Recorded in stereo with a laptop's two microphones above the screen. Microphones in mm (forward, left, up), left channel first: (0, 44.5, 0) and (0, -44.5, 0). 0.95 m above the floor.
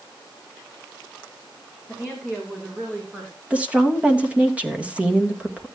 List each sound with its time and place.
1.9 s a woman speaking: 15° right (ahead or behind), 2.5 m; by 3.4 s 30° right (ahead or behind), 3.5 m
3.5 s a woman speaking: 15° right (ahead or behind), 1.2 m